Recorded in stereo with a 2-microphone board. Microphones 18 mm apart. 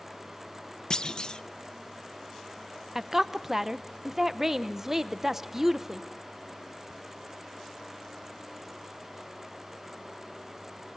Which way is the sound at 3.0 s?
25° right (ahead or behind).